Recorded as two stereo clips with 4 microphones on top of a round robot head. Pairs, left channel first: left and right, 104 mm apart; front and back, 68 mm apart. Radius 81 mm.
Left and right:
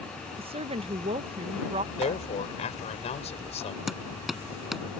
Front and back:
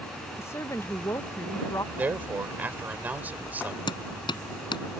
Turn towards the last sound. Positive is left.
turn(degrees=0)